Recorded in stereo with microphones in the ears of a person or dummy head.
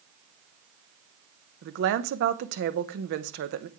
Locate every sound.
1.6 s a woman speaking: 70° right (ahead or behind), 0.8 m